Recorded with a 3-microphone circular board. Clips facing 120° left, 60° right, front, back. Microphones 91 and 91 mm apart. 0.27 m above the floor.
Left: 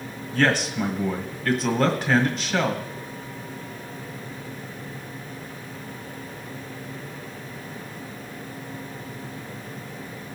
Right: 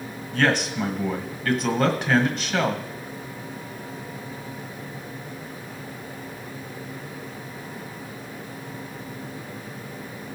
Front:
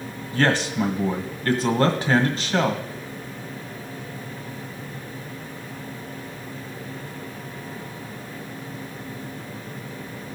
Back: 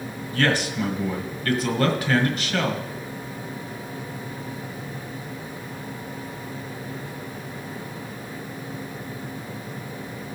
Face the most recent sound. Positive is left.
turn(degrees=30)